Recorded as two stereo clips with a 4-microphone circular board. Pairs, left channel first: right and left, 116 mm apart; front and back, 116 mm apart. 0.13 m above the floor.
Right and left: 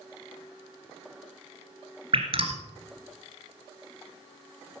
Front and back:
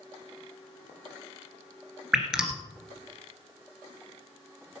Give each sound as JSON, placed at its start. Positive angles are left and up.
{"t": 2.1, "sound": "dripping", "azimuth_deg": 100, "distance_m": 1.9}